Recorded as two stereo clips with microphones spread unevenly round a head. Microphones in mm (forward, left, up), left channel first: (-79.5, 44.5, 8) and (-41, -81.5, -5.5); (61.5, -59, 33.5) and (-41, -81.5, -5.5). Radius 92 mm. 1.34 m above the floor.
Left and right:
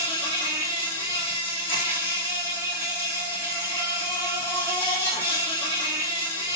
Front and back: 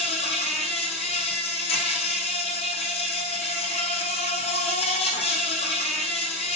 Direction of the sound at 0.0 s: 35° left.